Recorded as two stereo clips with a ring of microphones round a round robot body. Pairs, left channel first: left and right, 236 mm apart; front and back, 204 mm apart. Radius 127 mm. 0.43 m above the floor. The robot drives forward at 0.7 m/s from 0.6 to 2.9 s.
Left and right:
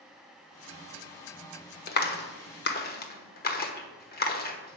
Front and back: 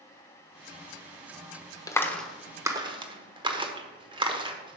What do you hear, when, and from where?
1.9 s a clap: 70° left, 1.1 m; by 4.8 s 120° left, 1.1 m